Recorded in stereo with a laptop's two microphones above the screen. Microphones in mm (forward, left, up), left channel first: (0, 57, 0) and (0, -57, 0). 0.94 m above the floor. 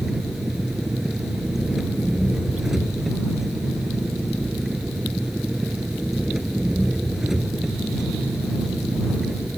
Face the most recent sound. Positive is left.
turn(degrees=-5)  # may be behind; listen again after turning